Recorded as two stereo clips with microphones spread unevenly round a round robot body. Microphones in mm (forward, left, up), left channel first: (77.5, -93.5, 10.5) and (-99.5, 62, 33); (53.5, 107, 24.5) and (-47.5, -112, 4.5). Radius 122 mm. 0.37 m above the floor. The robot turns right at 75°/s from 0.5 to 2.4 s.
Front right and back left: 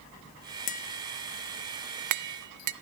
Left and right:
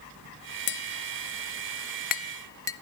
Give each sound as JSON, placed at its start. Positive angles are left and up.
{"t": 0.7, "sound": "tapping", "azimuth_deg": 15, "distance_m": 0.9}